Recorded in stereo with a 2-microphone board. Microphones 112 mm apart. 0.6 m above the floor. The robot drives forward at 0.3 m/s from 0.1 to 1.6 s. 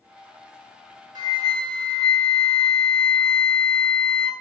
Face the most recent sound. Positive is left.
turn(degrees=-45)  # may be behind; listen again after turning